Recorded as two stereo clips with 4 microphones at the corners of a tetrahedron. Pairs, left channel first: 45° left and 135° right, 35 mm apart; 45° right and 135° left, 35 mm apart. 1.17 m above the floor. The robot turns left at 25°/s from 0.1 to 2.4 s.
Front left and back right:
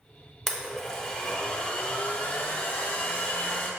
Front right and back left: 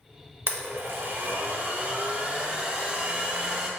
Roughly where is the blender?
Behind left.